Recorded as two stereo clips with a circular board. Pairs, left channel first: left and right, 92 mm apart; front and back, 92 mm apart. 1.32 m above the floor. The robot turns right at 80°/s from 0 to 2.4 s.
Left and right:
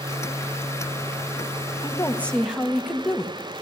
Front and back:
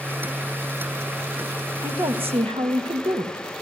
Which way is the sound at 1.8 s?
135° left.